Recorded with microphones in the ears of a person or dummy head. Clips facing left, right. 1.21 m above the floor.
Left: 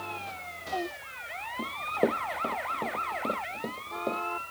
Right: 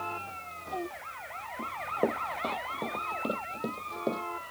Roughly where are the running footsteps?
Left.